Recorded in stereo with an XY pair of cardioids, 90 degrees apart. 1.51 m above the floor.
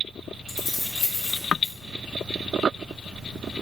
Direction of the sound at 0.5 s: 45° left.